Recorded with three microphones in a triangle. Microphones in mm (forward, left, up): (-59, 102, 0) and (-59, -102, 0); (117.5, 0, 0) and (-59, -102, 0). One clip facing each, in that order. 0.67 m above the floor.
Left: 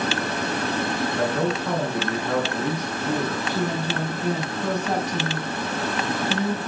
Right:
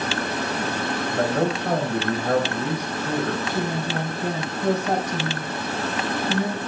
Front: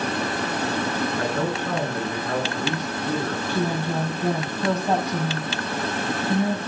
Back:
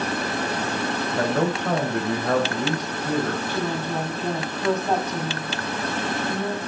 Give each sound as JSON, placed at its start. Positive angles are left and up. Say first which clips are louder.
{"t": 1.2, "sound": "a man speaking", "louder": "right 3 dB, back 2 dB", "azimuth_deg": -120, "distance_m": 3.0}
{"t": 3.5, "sound": "a woman speaking", "louder": "even, front 2 dB", "azimuth_deg": -50, "distance_m": 5.5}